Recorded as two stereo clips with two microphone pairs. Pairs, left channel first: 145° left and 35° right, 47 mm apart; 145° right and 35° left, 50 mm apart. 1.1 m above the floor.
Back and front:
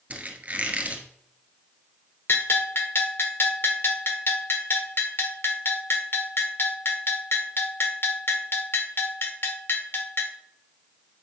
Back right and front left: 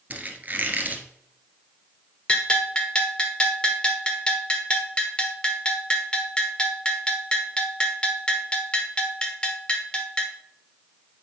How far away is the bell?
About 1.0 m.